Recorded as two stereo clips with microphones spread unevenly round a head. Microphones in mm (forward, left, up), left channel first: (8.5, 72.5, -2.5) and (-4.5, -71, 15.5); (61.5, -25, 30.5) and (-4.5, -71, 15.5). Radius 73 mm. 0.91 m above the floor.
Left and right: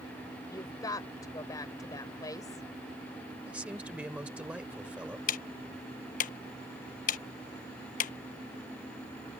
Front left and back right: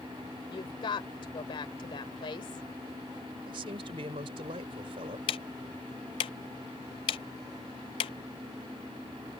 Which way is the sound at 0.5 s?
15° left.